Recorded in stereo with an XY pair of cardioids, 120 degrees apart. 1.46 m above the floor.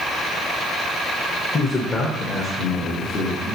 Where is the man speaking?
30° left, 1.2 m; by 3.6 s 65° left, 2 m.